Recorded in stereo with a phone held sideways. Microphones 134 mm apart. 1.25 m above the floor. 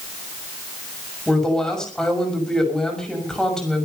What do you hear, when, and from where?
1.3 s a woman speaking: 5° left (ahead or behind), 6 m